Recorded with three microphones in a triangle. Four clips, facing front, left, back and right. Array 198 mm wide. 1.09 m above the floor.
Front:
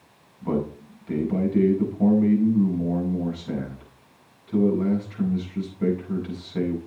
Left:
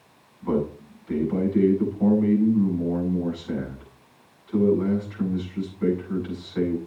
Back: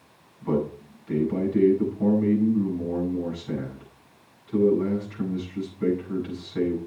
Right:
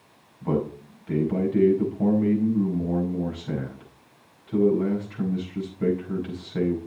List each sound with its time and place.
0.4 s a man speaking: 55° right, 8 m